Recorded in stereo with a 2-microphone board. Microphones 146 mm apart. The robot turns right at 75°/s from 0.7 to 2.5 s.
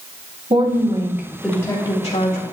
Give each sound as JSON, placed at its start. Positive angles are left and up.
{"t": 0.5, "sound": "a woman speaking", "azimuth_deg": -50, "distance_m": 2.5}